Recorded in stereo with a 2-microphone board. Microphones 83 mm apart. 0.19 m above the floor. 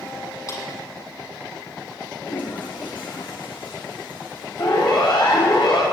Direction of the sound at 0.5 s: 45° left (ahead or behind).